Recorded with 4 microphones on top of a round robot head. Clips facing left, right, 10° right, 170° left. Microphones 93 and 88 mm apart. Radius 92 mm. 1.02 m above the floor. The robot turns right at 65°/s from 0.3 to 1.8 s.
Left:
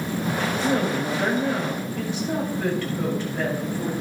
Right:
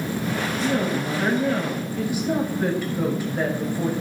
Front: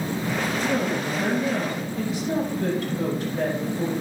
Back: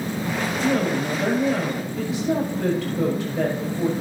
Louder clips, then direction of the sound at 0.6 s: Even, back 6 dB; 115° left.